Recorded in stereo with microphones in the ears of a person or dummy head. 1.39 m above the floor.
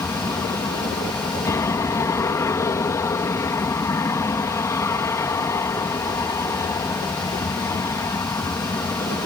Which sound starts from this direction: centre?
An aircraft, at 0.0 s.